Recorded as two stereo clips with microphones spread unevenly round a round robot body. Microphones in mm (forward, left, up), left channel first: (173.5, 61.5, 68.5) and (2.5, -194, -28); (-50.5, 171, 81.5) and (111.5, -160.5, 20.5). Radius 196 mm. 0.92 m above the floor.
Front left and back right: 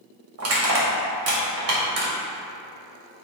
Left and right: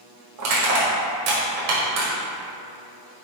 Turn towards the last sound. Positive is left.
turn(degrees=-95)